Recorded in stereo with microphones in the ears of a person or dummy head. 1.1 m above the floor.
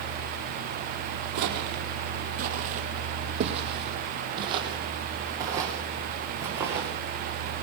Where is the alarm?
No alarm in this recording.